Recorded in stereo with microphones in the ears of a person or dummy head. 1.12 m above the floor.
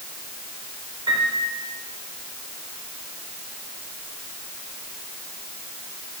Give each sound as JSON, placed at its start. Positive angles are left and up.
{"t": 1.1, "sound": "a piano", "side_deg": -20, "distance_m": 4.0}